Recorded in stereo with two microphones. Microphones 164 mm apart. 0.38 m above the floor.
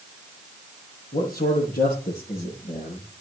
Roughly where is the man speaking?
Left.